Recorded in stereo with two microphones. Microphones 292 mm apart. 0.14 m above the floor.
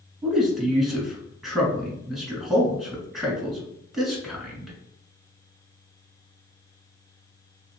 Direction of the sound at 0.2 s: Centre (ahead or behind).